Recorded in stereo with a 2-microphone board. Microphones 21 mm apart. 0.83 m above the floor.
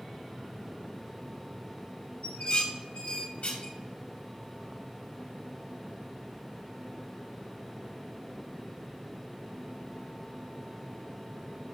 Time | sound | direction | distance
2.2 | dishes clattering | 70° left (ahead or behind) | 1.8 m